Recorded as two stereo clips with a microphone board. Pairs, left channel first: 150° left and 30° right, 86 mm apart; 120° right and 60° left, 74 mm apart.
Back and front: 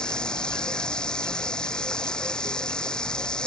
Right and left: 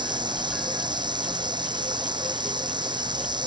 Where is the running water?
70° left.